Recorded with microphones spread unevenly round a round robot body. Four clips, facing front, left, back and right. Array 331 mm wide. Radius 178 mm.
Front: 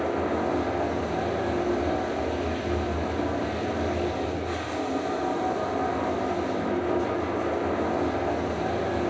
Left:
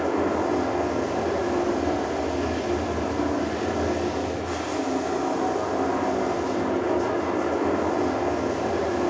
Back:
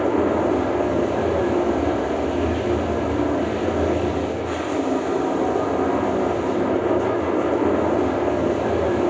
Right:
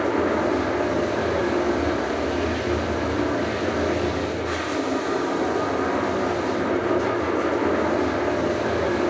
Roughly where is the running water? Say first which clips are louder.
Right 2 dB, back 7 dB; behind.